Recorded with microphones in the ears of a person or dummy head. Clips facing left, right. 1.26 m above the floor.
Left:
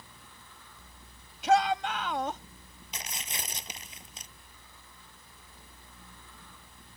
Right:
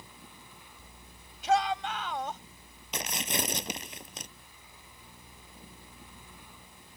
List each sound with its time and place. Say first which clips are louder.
1.4 s a shout: left 2 dB; 60° left (ahead or behind)
2.9 s tearing paper: right 9 dB; 55° right (ahead or behind)